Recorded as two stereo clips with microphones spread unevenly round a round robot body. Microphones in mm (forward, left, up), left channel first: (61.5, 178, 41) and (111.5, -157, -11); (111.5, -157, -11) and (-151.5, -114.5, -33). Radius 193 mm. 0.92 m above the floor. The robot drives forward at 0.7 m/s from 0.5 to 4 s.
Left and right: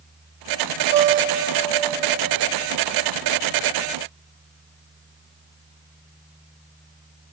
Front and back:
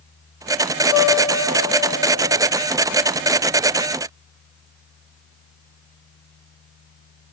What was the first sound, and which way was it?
A guitar, 35° right.